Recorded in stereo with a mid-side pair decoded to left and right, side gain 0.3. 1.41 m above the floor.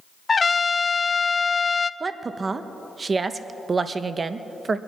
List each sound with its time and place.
0.3 s a trumpet: 45° left, 0.5 m
2.0 s a woman speaking: 50° right, 1.0 m